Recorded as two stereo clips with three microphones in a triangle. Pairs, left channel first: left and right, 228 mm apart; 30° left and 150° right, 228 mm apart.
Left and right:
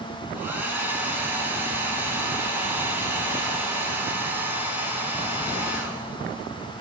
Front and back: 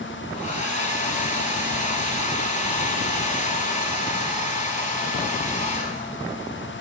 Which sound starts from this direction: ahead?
A hair dryer, at 0.3 s.